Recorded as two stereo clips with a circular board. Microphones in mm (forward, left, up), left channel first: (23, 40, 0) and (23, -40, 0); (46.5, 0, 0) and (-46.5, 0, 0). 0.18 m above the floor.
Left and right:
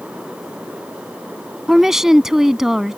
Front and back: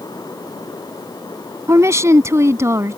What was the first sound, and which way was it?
A woman speaking, 170° right.